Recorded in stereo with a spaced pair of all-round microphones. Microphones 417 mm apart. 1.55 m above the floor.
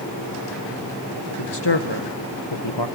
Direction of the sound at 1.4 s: 70° left (ahead or behind).